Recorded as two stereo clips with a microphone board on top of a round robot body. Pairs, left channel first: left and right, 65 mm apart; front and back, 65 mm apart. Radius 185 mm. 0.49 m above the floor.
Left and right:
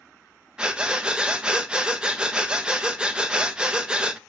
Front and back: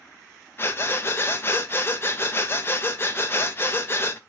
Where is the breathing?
20° right, 1.0 m.